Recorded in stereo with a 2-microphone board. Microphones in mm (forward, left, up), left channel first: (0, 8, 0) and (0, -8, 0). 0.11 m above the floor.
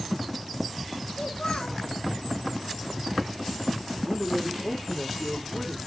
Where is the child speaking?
75° left (ahead or behind), 4 m.